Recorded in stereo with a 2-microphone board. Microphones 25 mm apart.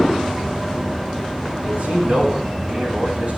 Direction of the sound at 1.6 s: 55° right (ahead or behind).